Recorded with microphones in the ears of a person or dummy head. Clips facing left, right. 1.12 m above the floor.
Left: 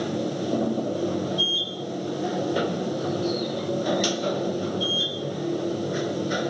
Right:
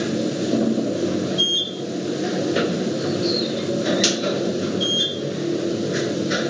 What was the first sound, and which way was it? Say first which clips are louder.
A machine running: right 5 dB; 25° right (ahead or behind).